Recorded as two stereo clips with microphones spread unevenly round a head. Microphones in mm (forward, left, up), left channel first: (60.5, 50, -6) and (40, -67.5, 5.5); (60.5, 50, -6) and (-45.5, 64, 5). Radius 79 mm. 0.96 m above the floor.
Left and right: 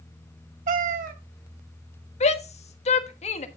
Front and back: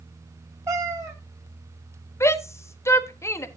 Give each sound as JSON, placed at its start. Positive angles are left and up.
{"t": 0.7, "sound": "a cat meowing", "azimuth_deg": -115, "distance_m": 0.9}
{"t": 2.2, "sound": "a shout", "azimuth_deg": 55, "distance_m": 1.3}